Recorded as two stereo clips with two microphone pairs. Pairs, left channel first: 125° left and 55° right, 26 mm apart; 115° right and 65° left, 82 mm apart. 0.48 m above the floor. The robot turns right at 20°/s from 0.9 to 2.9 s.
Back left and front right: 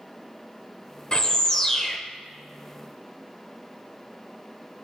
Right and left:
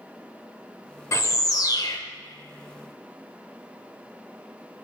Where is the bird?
165° right, 0.6 m; by 2.0 s 150° right, 0.6 m.